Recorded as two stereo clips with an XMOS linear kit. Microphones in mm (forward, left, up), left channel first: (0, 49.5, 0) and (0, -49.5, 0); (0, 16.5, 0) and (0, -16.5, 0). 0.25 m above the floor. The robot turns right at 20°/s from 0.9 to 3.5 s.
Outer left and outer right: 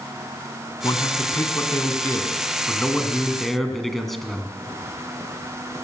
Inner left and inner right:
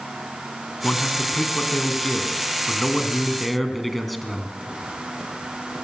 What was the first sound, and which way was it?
A man speaking, 125° left.